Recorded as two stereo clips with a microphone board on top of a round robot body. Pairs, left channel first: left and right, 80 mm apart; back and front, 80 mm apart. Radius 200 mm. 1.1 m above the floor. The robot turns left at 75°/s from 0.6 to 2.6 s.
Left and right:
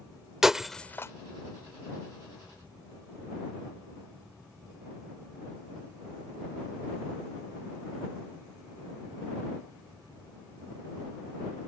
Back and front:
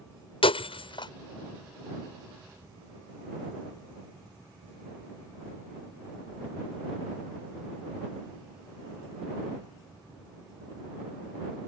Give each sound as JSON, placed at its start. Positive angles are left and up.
{"t": 0.4, "sound": "breaking glass", "azimuth_deg": -175}